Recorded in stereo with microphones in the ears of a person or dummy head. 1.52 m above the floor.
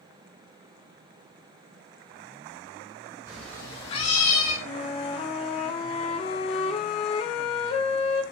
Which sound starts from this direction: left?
A flute, at 4.7 s.